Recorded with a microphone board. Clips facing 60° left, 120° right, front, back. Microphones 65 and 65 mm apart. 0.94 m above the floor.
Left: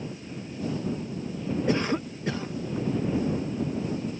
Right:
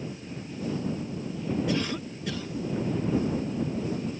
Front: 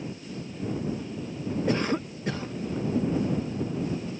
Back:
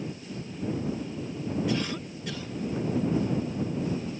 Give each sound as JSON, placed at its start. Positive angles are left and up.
{"t": 1.7, "sound": "a cough", "azimuth_deg": 25}